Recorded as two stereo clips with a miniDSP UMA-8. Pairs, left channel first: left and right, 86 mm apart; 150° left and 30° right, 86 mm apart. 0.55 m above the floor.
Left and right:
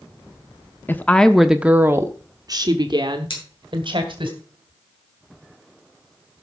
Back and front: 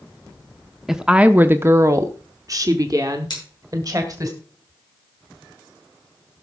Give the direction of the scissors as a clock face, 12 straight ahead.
8 o'clock.